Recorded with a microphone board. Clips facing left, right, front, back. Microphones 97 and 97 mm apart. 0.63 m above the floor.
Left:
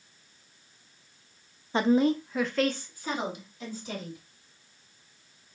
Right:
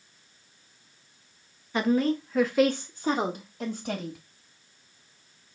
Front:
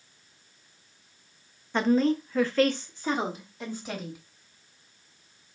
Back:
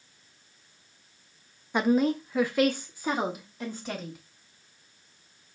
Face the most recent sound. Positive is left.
turn(degrees=-95)